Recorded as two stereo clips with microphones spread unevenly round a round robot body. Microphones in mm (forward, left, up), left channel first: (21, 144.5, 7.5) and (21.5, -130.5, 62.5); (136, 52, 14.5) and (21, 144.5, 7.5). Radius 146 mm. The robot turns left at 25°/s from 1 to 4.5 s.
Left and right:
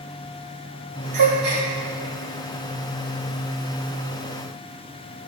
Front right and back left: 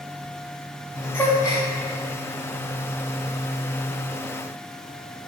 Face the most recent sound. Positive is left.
turn(degrees=155)